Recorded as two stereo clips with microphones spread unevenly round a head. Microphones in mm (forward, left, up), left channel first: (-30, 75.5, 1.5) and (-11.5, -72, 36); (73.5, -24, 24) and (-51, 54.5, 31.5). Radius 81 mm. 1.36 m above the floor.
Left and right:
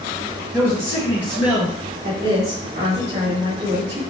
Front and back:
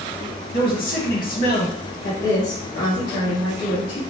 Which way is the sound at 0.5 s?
15° right.